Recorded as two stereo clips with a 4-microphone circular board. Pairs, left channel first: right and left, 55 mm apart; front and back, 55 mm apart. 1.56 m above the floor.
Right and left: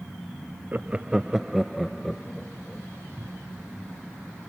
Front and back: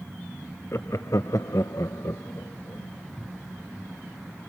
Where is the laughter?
35° left; by 2.9 s 10° right.